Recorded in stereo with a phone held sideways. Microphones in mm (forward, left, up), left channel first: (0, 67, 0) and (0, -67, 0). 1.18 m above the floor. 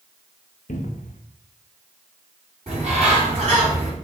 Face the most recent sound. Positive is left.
turn(degrees=-50)  # may be behind; listen again after turning